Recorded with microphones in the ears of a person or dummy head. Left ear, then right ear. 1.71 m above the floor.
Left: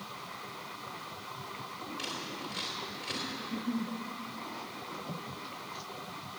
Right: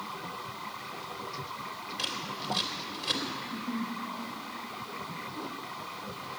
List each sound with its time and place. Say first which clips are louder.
2.0 s scissors: right 5 dB; 15° right (ahead or behind), 3 m
3.4 s a giggle: right 1 dB; 50° left (ahead or behind), 0.6 m